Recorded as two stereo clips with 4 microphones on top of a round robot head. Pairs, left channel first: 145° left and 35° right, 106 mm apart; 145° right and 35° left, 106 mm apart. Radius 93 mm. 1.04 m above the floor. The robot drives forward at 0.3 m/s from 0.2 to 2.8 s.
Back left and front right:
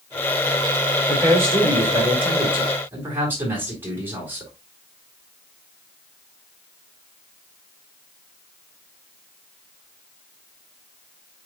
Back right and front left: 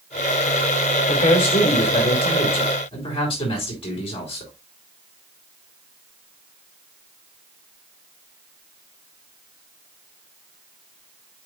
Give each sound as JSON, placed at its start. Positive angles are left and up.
{"t": 1.1, "sound": "a man speaking", "azimuth_deg": -100, "distance_m": 4.5}